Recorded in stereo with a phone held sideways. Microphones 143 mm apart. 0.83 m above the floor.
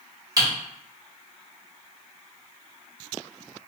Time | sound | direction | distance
0.4 | typing on a keyboard | 25° right (ahead or behind) | 1.8 m